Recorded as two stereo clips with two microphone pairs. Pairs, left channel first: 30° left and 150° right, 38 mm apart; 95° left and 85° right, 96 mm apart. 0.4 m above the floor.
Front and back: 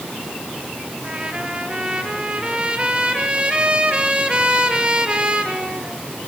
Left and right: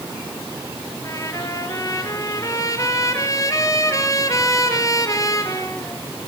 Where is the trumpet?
145° left, 3 m.